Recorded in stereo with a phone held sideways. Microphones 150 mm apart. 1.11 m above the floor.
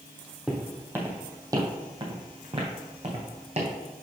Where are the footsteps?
5° right (ahead or behind), 1.5 m; by 3.7 s 45° right (ahead or behind), 2.5 m.